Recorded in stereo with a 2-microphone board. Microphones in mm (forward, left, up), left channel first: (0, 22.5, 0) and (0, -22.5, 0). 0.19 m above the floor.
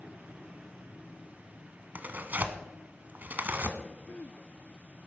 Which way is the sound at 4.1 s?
40° left (ahead or behind).